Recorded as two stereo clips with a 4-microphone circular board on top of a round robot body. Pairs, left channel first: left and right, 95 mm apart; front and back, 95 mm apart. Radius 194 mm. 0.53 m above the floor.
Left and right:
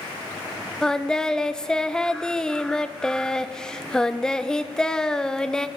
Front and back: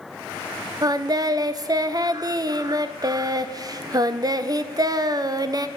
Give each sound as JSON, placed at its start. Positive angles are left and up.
{"t": 0.8, "sound": "singing", "azimuth_deg": 170, "distance_m": 0.7}